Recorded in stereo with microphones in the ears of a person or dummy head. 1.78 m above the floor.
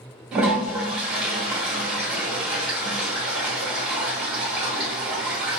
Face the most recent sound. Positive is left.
turn(degrees=-10)  # may be behind; listen again after turning